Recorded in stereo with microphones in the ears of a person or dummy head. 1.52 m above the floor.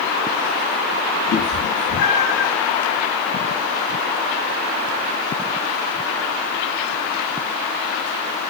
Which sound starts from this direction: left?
A cat meowing, at 1.3 s.